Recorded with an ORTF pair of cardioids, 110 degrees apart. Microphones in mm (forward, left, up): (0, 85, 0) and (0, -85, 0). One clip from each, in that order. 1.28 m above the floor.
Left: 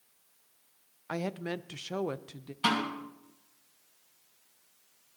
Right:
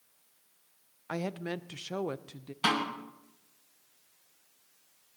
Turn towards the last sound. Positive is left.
turn(degrees=-20)